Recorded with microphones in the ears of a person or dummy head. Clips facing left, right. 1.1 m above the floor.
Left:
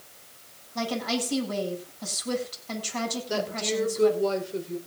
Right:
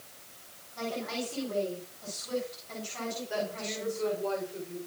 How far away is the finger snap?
No finger snap in this recording.